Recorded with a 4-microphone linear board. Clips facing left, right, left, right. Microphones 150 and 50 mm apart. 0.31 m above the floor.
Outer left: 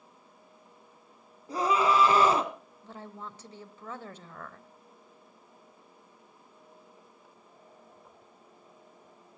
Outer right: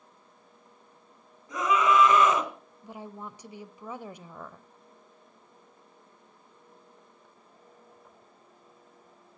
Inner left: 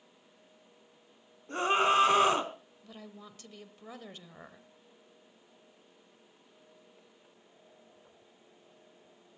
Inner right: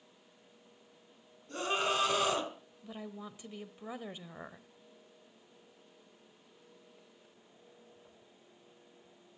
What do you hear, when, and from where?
1.5 s a scream: 35° left (ahead or behind), 2.5 m
2.8 s a woman speaking: 15° right (ahead or behind), 1.0 m